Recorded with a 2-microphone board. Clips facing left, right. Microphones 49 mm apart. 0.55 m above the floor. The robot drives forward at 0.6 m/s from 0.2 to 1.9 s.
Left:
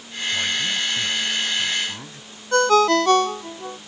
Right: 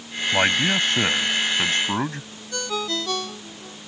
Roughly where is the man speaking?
Right.